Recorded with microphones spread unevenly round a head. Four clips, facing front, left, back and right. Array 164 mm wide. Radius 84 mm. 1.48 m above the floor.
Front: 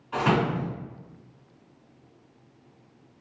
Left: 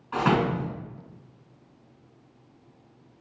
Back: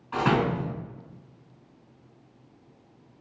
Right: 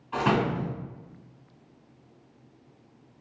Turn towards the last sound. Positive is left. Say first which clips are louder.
# left 2 dB, even
turn(degrees=95)